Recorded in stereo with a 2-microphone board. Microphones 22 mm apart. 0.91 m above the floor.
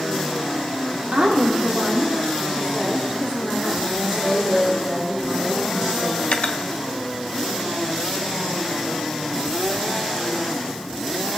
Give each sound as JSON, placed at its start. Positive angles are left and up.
{"t": 1.1, "sound": "a woman speaking", "side_deg": -75, "distance_m": 2.5}
{"t": 4.0, "sound": "a woman speaking", "side_deg": -25, "distance_m": 5.5}
{"t": 6.2, "sound": "cutlery clinking", "side_deg": 60, "distance_m": 0.6}